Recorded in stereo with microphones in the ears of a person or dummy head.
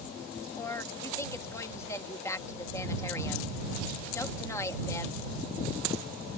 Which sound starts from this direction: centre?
A woman speaking, at 0.6 s.